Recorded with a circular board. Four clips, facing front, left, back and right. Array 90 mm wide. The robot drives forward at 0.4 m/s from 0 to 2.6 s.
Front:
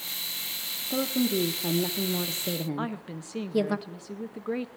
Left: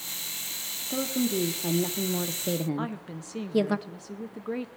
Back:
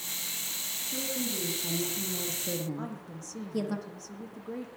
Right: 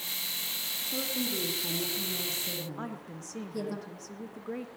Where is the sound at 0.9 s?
25° left, 1.1 m; by 3.8 s 65° left, 0.6 m.